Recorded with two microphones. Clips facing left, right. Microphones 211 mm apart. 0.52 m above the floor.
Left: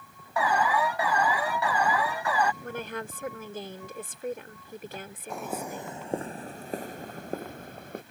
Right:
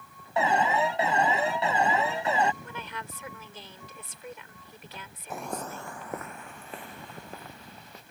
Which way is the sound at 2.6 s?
45° left (ahead or behind).